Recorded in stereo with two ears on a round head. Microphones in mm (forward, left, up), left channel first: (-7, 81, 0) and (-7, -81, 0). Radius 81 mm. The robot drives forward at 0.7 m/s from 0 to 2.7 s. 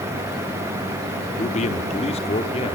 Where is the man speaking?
40° left (ahead or behind), 1.4 m; by 2.8 s 30° left (ahead or behind), 1.8 m.